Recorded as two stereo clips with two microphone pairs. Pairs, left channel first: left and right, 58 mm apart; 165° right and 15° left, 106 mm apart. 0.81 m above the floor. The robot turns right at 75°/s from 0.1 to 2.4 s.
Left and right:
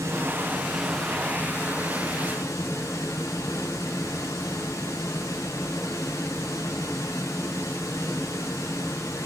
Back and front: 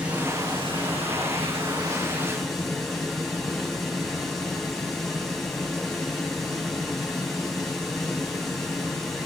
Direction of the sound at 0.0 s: 65° right.